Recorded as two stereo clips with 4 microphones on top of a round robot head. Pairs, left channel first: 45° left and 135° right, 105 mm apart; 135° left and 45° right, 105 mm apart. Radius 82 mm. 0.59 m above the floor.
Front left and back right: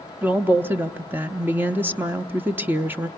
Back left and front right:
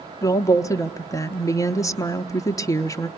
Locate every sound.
0.2 s a woman speaking: 165° left, 0.8 m